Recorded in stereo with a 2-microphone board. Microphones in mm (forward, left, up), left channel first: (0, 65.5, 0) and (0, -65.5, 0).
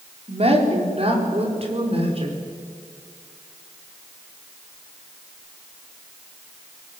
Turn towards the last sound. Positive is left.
turn(degrees=-45)  # may be behind; listen again after turning